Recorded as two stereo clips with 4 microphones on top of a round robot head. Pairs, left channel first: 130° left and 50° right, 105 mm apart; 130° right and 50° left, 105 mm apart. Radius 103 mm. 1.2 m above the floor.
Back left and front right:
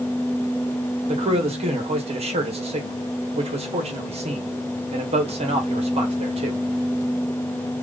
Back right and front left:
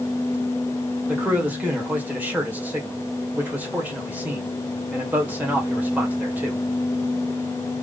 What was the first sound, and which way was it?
A man speaking, 25° right.